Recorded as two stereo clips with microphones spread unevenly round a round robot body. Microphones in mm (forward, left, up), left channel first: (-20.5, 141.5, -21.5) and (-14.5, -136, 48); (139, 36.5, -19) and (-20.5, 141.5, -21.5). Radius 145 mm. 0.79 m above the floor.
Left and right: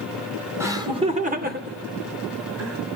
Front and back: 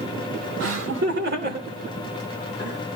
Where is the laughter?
175° right, 2.5 m; by 2.8 s 125° right, 3.5 m.